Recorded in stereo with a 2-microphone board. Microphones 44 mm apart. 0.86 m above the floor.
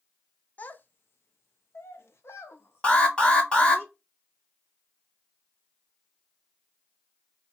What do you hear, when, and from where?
0.6 s a child speaking: 40° left (ahead or behind), 0.6 m; by 3.8 s 60° left (ahead or behind), 1.7 m
2.8 s an alarm: 25° left (ahead or behind), 1.7 m